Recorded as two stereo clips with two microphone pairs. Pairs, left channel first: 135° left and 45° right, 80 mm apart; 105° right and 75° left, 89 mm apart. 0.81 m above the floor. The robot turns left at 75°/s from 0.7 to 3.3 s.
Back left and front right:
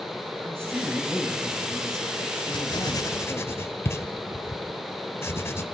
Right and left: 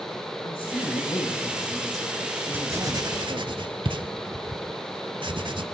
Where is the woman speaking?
100° right, 3.5 m; by 3.5 s 65° left, 3.5 m.